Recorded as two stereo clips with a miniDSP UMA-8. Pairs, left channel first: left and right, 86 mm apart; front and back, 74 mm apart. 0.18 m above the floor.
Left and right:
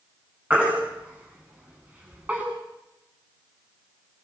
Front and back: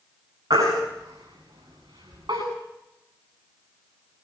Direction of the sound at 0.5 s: 155° right.